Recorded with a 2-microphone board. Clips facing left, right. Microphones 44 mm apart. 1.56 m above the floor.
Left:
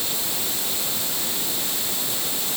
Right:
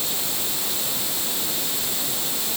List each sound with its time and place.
Only background noise.